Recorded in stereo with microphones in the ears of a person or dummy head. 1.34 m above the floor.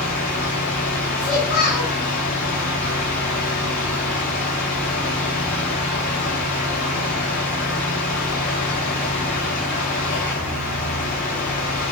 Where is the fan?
50° left (ahead or behind), 3.5 m.